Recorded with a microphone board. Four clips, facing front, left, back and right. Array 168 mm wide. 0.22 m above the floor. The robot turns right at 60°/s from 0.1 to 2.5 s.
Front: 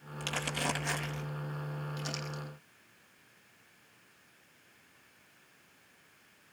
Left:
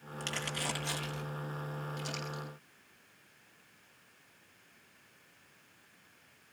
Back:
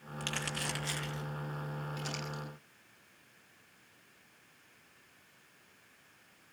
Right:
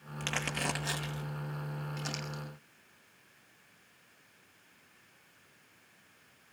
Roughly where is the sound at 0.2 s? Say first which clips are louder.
Right 3 dB, front 4 dB; right.